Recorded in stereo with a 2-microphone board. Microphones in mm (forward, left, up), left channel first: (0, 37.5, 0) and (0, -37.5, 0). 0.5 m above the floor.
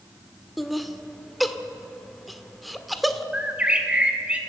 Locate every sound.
0.6 s laughter: centre (ahead or behind), 1.5 m
3.3 s a bird: 15° right (ahead or behind), 2 m